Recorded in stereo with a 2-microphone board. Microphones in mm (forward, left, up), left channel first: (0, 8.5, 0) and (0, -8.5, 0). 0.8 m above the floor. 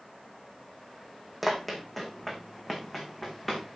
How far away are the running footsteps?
About 2.5 m.